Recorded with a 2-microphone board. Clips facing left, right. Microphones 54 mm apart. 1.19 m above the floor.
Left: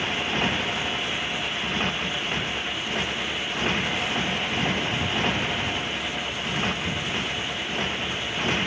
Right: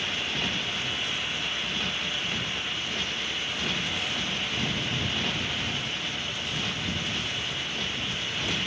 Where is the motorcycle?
40° left (ahead or behind).